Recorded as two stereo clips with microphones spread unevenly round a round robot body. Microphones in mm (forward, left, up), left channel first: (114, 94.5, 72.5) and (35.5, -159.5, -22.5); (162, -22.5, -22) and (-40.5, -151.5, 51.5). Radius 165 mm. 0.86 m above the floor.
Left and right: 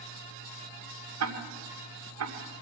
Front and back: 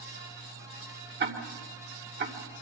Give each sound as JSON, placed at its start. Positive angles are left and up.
{"t": 1.2, "sound": "ticking", "azimuth_deg": -95, "distance_m": 2.5}